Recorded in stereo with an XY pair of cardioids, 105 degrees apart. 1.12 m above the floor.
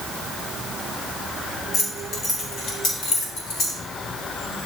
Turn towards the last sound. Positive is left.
turn(degrees=70)